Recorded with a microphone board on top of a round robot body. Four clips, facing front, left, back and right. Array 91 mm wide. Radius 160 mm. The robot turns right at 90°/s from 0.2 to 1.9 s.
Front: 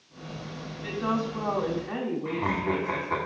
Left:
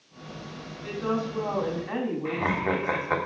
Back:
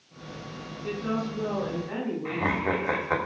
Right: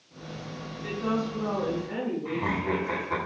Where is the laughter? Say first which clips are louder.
Left 3 dB, back 2 dB; 130° left, 2.5 m.